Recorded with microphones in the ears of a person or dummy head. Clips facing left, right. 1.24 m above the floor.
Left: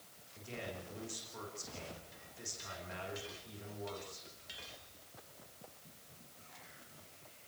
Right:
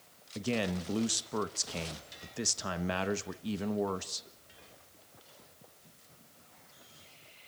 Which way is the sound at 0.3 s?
75° right (ahead or behind).